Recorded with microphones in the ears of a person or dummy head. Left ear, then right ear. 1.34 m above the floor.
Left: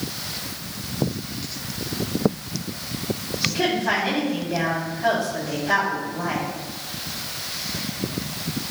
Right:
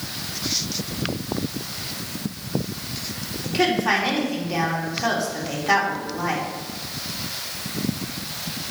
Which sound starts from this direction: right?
A woman speaking, at 3.4 s.